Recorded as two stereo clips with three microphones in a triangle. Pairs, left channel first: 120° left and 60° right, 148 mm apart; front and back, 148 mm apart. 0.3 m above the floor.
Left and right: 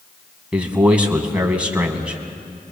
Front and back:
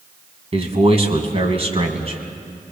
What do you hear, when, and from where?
0.5 s a man speaking: 140° right, 2 m